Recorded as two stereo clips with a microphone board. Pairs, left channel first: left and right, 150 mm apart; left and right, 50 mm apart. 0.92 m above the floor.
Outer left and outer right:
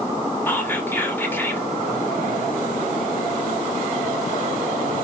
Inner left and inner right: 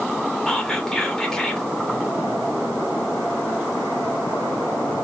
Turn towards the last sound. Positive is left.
turn(degrees=15)  # may be behind; listen again after turning